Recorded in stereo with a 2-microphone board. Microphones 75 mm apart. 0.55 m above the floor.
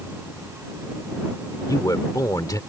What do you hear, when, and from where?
1.7 s a man speaking: 55° left (ahead or behind)